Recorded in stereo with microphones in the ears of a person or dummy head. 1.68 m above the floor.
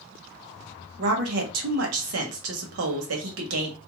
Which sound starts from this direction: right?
A woman speaking, at 1.0 s.